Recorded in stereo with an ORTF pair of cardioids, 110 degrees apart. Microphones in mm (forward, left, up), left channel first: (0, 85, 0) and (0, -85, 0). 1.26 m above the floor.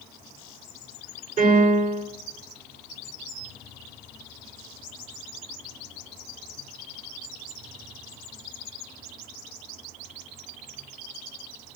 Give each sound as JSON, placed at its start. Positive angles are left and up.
{"t": 1.4, "sound": "a piano", "azimuth_deg": -55, "distance_m": 4.0}